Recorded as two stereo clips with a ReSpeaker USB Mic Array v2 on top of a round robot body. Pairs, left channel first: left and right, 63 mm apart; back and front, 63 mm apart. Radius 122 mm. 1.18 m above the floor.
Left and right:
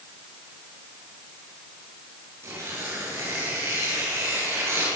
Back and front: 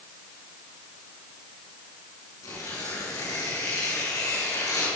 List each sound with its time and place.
2.4 s tearing paper: 140° right, 7.5 m